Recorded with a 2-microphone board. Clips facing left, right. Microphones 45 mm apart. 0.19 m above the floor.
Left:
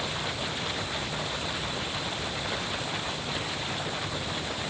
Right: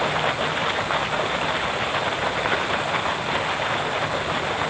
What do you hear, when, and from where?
0.0 s running water: 55° right (ahead or behind)